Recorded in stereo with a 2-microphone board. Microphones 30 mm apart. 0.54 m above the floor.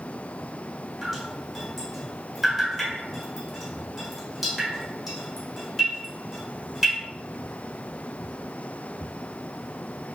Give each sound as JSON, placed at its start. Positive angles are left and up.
{"t": 1.0, "sound": "dripping", "side_deg": -5, "distance_m": 1.5}